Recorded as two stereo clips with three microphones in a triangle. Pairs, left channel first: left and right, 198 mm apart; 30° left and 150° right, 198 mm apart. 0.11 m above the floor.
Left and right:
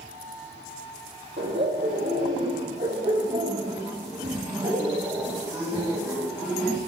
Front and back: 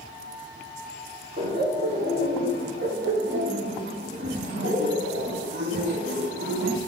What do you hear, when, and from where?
1.4 s laughter: 110° right, 3.5 m; by 6.8 s 175° right, 4 m